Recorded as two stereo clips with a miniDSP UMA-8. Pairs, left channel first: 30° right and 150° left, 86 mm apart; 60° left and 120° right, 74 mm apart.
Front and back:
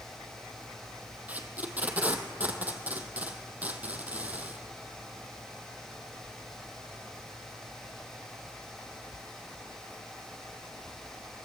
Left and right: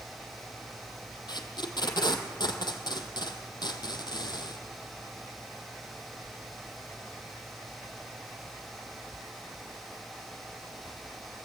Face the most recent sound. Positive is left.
turn(degrees=75)